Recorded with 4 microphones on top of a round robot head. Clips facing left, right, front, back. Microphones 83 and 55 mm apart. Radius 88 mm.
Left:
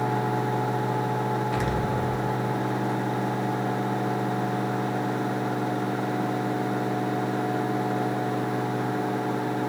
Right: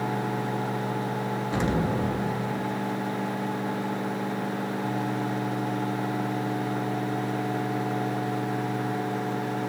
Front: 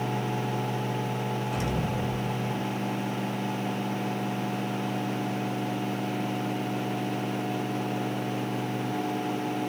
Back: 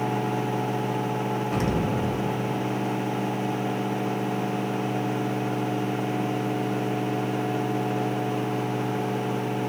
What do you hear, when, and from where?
1.5 s an explosion: 150° right, 0.6 m